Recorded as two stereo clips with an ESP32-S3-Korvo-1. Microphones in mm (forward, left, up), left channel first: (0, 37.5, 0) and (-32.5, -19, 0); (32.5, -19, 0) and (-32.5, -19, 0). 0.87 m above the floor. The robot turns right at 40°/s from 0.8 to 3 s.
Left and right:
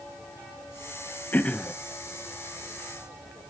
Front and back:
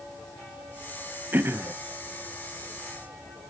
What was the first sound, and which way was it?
Throat clearing, 125° left.